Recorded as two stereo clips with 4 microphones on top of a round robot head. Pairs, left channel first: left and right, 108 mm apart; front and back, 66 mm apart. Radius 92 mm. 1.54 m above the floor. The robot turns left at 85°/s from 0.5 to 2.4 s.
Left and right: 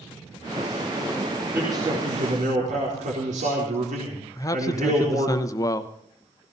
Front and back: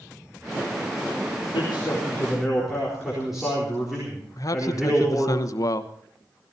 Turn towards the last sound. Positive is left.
turn(degrees=30)